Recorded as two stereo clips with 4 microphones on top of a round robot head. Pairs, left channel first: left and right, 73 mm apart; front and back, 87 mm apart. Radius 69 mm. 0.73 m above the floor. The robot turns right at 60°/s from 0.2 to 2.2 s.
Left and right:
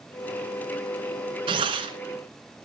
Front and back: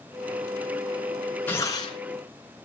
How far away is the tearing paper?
About 1.6 m.